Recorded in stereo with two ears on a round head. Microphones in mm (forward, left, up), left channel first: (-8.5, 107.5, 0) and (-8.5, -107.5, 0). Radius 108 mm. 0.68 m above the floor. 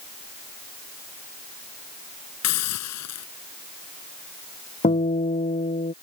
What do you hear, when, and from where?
2.4 s a hiss: 75° left (ahead or behind)
4.8 s a guitar: 25° left (ahead or behind)